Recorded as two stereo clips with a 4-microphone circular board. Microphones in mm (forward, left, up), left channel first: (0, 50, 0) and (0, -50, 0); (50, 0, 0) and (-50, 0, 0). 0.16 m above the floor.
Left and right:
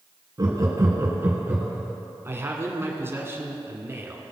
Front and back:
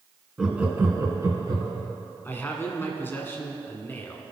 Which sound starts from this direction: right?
Laughter, at 0.4 s.